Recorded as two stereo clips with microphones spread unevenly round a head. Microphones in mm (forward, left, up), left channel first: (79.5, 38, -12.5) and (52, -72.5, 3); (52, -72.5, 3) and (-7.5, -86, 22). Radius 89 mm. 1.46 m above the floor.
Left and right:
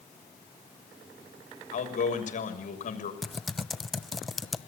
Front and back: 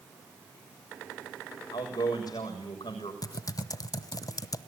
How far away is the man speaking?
About 6.5 m.